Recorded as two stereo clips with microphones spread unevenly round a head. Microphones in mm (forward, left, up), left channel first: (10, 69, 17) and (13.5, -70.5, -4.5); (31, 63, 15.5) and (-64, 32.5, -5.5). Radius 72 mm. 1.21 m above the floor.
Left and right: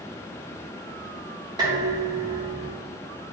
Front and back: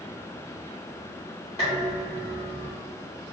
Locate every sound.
1.6 s dishes clattering: 25° right, 2.0 m